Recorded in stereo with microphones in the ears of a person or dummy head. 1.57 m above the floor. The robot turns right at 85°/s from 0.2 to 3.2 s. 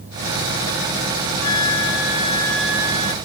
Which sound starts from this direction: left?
A flute, at 1.4 s.